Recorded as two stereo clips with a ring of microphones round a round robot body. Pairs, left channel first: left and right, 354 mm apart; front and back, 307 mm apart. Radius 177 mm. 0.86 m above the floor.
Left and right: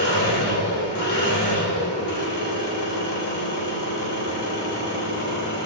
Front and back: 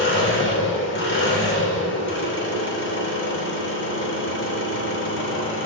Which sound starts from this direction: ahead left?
An engine running, at 0.0 s.